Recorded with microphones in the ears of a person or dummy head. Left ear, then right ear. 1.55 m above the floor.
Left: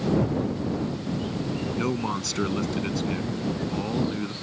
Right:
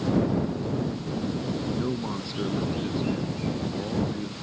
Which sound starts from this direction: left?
A man speaking, at 1.8 s.